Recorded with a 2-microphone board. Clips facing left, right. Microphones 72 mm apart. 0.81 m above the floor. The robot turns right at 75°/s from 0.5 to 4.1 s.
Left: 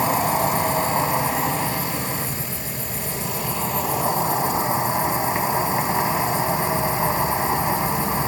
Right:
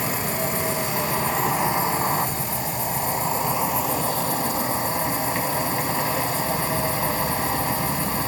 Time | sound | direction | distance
0.0 | an insect | 110° left | 2 m